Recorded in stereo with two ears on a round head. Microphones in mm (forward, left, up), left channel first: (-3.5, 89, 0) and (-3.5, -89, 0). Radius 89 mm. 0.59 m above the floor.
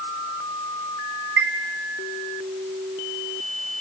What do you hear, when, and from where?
1.4 s a chime: 60° right (ahead or behind), 2.5 m